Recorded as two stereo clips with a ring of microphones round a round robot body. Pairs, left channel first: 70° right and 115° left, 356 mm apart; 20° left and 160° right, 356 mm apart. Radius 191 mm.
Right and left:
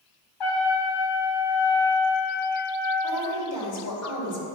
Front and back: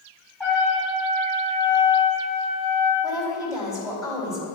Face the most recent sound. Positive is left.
turn(degrees=-55)